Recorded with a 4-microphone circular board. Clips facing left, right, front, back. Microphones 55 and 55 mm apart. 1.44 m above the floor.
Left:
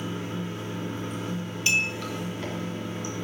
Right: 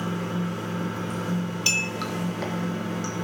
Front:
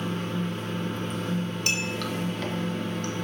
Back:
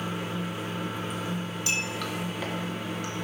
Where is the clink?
20° left, 2.5 m.